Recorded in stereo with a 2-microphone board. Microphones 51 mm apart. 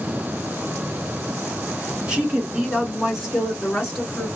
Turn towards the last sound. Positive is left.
turn(degrees=0)  # may be behind; listen again after turning